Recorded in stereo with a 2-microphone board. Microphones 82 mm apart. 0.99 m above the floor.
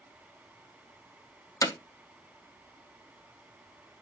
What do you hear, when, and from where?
1.6 s hammering: 45° left (ahead or behind), 0.7 m